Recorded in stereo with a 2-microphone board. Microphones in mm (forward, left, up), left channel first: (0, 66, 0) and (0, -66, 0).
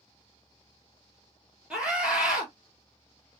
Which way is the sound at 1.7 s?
5° right (ahead or behind).